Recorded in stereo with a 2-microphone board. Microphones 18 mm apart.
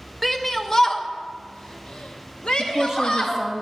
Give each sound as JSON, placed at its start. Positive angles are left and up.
{"t": 0.2, "sound": "a shout", "side_deg": 5, "distance_m": 0.9}
{"t": 2.6, "sound": "a woman speaking", "side_deg": -20, "distance_m": 1.0}